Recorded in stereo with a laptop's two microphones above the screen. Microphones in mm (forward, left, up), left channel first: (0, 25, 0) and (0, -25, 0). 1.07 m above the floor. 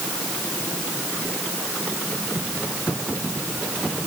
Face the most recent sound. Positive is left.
No sound to turn to.